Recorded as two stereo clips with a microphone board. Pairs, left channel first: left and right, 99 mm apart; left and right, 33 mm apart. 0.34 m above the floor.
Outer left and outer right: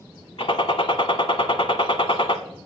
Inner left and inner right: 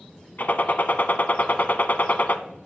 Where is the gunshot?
65° left (ahead or behind), 0.8 m.